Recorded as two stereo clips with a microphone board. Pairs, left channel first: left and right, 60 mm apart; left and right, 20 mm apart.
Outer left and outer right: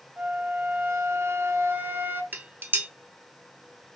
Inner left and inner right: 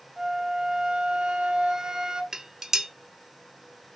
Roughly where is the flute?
Right.